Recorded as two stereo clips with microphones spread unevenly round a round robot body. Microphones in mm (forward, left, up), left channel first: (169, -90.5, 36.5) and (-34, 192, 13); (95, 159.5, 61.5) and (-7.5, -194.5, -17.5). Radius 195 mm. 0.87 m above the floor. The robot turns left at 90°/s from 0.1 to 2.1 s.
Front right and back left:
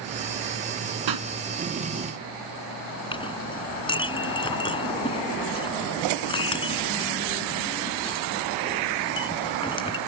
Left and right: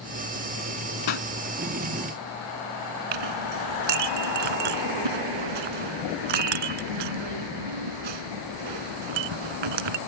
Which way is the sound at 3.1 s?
130° right.